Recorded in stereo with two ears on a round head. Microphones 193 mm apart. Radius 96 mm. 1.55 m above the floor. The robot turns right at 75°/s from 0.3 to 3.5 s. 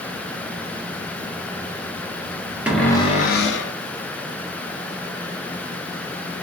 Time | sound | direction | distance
2.7 | a cupboard door | 5° right | 0.6 m